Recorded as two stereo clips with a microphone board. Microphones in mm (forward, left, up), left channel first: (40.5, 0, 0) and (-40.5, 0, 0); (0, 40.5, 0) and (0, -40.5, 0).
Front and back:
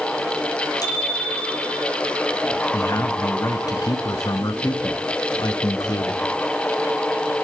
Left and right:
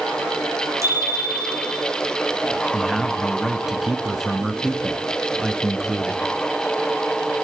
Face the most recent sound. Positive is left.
turn(degrees=-5)